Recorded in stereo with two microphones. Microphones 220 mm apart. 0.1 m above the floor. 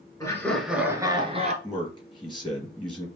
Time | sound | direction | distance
0.2 | laughter | 15° left (ahead or behind) | 1.3 m
1.6 | a man speaking | 20° left (ahead or behind) | 2 m